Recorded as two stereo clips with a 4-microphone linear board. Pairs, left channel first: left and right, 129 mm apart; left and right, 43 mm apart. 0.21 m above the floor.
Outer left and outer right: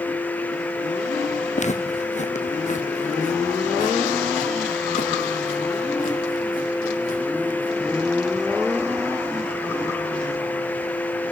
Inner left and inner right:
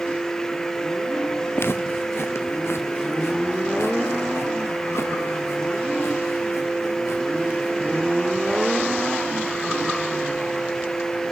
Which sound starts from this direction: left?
Footsteps, at 1.6 s.